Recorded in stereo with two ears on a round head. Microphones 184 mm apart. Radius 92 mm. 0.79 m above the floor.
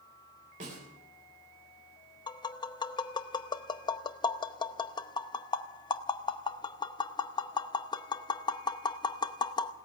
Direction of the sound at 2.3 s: 25° left (ahead or behind).